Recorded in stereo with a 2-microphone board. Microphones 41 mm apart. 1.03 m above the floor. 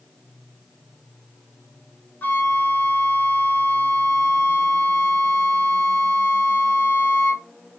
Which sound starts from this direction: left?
A flute, at 2.2 s.